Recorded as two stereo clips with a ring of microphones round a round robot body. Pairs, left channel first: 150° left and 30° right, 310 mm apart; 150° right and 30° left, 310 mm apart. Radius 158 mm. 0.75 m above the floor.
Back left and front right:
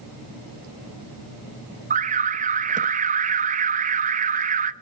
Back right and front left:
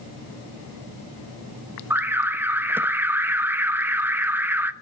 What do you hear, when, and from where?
1.9 s an alarm: 45° right, 0.7 m